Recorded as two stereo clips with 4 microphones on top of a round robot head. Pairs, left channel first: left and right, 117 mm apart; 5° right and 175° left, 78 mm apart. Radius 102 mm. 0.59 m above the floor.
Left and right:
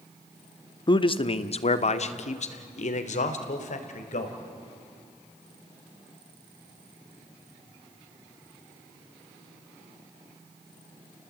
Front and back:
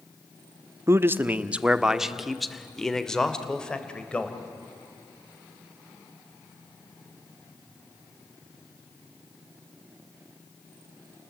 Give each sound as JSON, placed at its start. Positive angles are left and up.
{"t": 0.9, "sound": "a man speaking", "azimuth_deg": 130, "distance_m": 1.0}